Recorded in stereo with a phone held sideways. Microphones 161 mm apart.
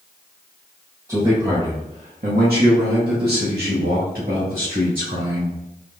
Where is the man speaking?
20° right (ahead or behind), 1.4 m; by 5.6 s 65° right (ahead or behind), 3 m.